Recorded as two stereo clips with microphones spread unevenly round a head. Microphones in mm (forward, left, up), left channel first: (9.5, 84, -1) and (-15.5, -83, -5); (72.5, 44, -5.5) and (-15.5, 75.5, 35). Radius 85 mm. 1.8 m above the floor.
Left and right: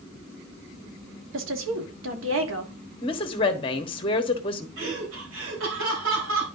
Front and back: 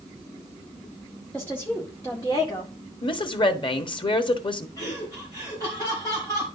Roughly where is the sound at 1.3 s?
Right.